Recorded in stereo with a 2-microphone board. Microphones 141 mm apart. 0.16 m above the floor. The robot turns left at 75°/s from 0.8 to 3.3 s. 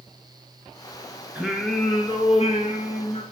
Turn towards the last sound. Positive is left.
turn(degrees=50)